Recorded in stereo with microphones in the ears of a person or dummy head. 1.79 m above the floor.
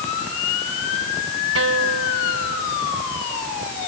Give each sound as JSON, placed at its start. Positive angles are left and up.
{"t": 1.6, "sound": "a guitar", "side_deg": -90}